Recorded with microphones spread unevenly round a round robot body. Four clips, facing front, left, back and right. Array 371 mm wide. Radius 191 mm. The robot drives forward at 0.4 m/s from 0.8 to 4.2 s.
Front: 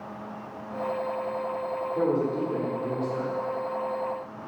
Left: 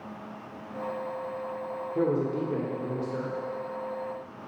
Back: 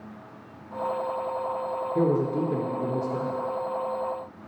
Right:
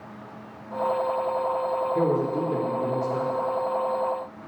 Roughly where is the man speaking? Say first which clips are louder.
Left 1 dB, back 2 dB; behind.